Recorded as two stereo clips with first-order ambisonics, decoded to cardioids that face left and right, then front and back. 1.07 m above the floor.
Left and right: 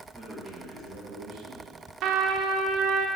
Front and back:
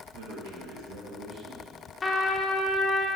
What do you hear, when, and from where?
0.1 s a man speaking: 175° right, 2 m; by 1.7 s 110° right, 1.9 m
2.0 s a trumpet: 70° right, 0.8 m